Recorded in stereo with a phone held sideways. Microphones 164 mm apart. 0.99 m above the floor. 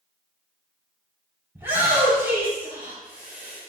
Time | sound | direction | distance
1.6 | a shout | 15° right (ahead or behind) | 5.5 m